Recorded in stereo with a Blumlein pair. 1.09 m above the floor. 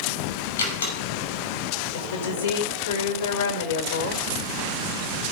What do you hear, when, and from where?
0.6 s a door slam: 65° left, 5.5 m
1.9 s a woman speaking: 65° left, 3.5 m